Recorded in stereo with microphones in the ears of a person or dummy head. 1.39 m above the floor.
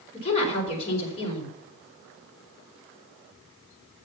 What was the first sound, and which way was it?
A woman speaking, 35° left (ahead or behind).